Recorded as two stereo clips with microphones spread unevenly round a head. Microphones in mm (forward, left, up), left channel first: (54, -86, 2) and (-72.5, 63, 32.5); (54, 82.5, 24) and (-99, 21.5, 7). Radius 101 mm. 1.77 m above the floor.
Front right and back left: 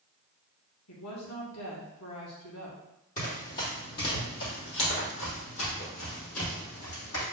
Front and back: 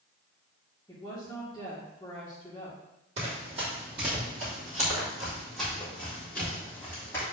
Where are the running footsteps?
100° right, 3.5 m; by 7.2 s 55° right, 4.5 m.